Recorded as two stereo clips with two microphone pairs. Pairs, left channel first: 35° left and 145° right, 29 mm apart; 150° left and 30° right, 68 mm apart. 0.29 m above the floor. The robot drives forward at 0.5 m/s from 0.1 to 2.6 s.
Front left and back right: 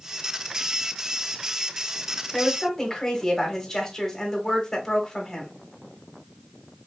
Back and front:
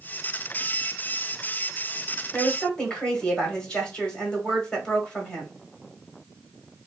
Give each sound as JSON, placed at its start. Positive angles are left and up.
{"t": 2.3, "sound": "a woman speaking", "azimuth_deg": 80, "distance_m": 1.1}